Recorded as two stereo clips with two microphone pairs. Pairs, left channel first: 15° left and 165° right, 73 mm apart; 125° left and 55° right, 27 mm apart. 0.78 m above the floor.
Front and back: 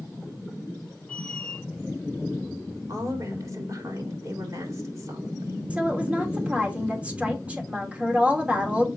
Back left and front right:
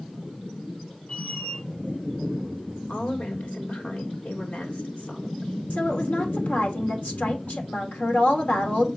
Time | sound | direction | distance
1.1 | a squeak | 90° left | 1.4 m
2.9 | a woman speaking | 150° left | 3 m
5.7 | a woman speaking | 125° left | 2.5 m